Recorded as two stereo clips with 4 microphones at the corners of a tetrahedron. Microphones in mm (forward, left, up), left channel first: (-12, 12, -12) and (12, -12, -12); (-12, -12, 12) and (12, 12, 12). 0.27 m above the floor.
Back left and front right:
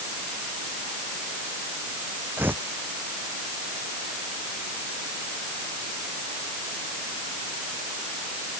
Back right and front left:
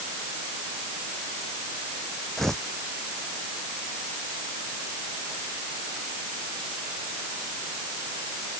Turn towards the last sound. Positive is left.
turn(degrees=-55)